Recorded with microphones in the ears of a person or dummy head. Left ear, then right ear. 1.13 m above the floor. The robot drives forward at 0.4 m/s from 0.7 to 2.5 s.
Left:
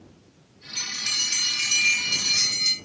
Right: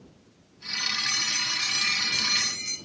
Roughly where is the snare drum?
No snare drum in this recording.